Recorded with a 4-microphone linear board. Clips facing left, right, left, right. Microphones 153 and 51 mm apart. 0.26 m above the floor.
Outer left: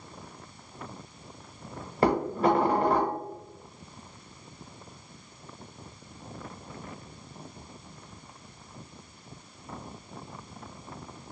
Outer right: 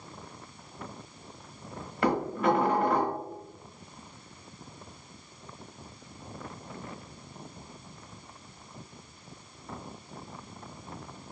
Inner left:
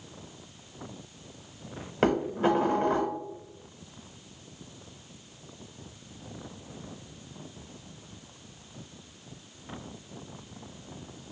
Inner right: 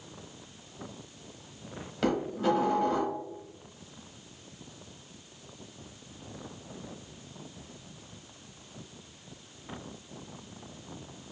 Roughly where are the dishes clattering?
Left.